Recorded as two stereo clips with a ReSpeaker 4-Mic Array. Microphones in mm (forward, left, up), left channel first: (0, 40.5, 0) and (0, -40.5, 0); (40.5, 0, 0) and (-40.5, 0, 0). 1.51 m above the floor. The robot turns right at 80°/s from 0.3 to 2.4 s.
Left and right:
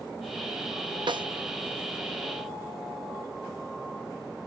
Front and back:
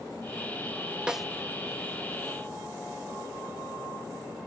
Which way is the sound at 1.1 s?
100° right.